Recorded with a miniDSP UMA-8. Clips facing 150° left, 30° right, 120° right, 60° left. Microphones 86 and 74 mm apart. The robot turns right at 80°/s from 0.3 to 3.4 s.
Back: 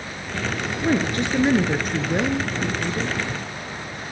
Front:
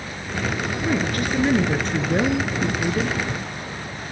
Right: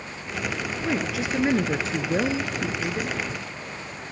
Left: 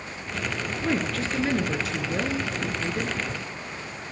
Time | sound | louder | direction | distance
0.8 | a woman speaking | back 3 dB, even | 145° left | 1.2 m